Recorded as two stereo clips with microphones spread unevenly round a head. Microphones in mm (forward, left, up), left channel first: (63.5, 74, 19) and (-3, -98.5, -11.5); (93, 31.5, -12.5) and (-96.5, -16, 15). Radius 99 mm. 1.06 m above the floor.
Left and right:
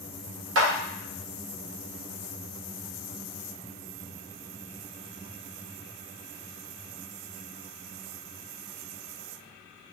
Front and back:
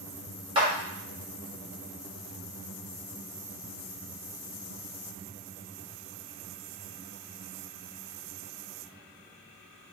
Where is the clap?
100° right, 1.4 m.